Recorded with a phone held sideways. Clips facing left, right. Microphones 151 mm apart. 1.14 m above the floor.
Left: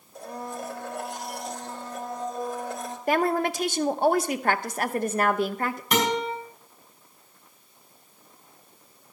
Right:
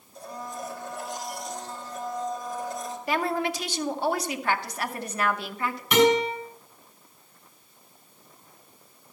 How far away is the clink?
I don't hear a clink.